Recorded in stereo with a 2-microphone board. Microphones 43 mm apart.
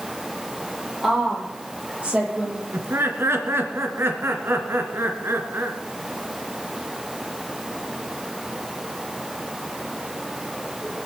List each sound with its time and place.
1.0 s a woman speaking: 10° right (ahead or behind), 7 m; by 2.6 s 30° right (ahead or behind), 6 m
2.7 s laughter: 70° right (ahead or behind), 2.5 m